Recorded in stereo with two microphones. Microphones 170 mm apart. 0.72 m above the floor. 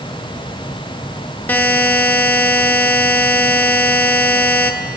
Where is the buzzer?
10° left (ahead or behind), 0.7 m.